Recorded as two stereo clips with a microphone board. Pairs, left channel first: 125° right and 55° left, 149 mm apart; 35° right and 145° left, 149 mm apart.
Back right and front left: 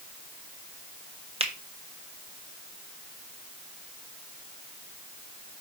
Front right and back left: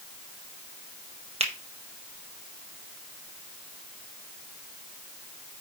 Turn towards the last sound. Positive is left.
turn(degrees=100)